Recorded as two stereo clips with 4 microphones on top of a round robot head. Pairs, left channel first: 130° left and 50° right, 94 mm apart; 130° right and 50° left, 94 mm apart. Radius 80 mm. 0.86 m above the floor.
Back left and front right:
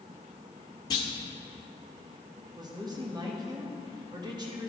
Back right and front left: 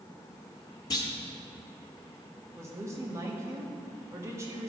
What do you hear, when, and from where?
0.9 s a clunk: straight behind, 0.9 m
2.6 s a woman speaking: 10° right, 1.7 m